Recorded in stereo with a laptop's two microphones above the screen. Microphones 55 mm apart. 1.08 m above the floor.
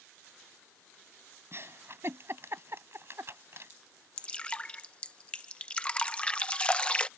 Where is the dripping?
20° left (ahead or behind).